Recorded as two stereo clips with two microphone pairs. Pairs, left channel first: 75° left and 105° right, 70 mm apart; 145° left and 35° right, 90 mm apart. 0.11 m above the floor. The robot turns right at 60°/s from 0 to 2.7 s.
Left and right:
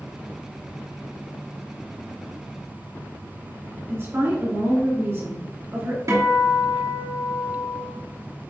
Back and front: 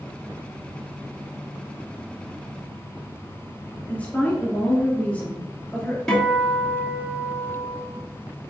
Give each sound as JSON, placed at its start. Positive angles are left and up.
{"t": 3.9, "sound": "a woman speaking", "azimuth_deg": -145, "distance_m": 2.0}
{"t": 6.1, "sound": "a guitar", "azimuth_deg": -130, "distance_m": 2.5}